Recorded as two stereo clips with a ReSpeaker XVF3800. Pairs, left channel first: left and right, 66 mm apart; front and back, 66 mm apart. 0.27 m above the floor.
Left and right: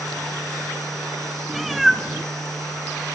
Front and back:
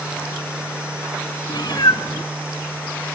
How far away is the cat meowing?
About 1.0 m.